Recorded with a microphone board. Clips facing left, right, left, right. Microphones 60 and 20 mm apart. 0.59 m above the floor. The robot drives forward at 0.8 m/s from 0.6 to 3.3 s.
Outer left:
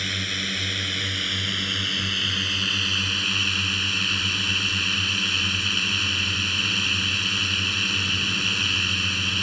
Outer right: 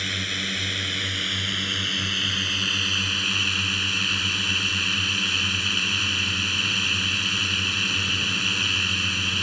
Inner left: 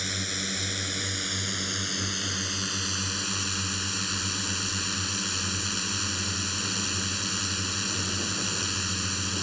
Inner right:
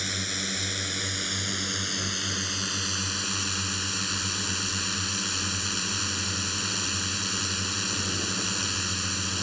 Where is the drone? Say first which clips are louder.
Even, inner right 1 dB; centre (ahead or behind).